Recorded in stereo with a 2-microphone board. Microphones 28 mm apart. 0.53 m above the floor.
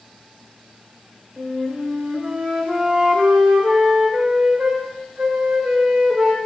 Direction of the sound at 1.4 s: 35° right (ahead or behind).